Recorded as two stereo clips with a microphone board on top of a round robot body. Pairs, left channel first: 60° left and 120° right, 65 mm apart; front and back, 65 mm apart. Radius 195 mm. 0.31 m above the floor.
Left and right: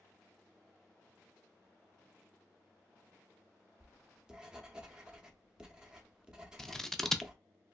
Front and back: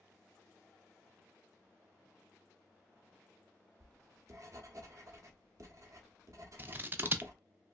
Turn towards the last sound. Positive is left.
turn(degrees=140)